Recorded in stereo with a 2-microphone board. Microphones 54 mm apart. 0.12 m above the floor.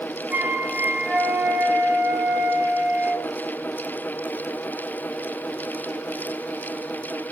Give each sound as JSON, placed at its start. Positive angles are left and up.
{"t": 0.3, "sound": "a flute", "side_deg": -30, "distance_m": 0.7}